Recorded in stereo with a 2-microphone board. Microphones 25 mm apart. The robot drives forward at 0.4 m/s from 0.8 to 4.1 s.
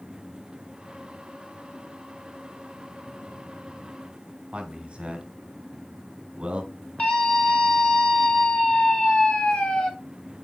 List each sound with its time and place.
4.5 s a man speaking: 40° right (ahead or behind), 2.5 m
7.0 s a scream: 65° left (ahead or behind), 3 m